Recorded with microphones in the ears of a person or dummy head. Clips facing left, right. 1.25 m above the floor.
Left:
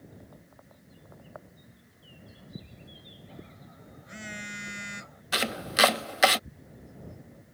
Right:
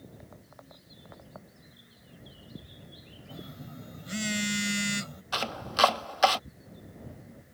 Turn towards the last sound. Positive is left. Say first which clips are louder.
# left 2 dB
turn(degrees=20)  # may be behind; listen again after turning